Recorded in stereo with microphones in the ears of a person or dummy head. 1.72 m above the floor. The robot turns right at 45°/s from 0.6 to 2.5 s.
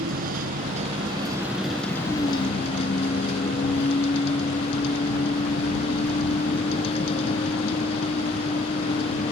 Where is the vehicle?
55° right; by 9.3 s 30° left.